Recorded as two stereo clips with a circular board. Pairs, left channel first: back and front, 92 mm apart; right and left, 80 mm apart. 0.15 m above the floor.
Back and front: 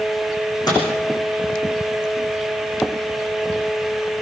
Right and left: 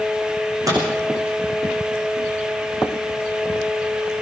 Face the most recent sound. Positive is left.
turn(degrees=135)